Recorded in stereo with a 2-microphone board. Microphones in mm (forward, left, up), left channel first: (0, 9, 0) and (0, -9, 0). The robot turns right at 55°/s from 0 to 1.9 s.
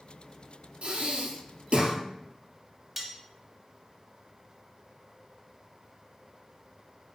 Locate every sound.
0.8 s breathing: 105° right, 1.6 m; by 1.9 s 45° right, 1.6 m
3.0 s cutlery clinking: 10° right (ahead or behind), 0.8 m